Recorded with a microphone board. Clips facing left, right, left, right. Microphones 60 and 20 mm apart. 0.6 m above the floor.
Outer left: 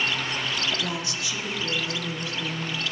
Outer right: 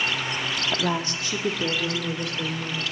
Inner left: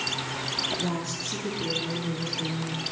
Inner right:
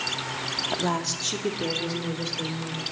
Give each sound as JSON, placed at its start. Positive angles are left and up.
{"t": 0.7, "sound": "a woman speaking", "side_deg": -25, "distance_m": 0.7}